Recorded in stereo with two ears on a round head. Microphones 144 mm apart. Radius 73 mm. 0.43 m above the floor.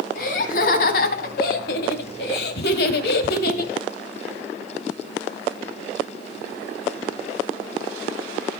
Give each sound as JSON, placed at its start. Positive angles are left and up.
{"t": 0.1, "sound": "laughter", "side_deg": 55, "distance_m": 3.0}